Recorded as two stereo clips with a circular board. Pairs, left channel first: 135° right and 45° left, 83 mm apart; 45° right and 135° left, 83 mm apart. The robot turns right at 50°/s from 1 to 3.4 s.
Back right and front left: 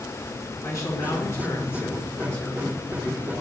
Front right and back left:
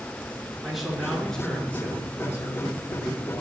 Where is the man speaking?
140° right, 2 m; by 3.4 s 20° right, 2 m.